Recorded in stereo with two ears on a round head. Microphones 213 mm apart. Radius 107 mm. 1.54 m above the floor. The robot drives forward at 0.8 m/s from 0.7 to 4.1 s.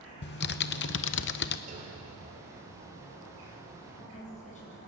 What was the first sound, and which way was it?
Typing on a keyboard, 45° left (ahead or behind).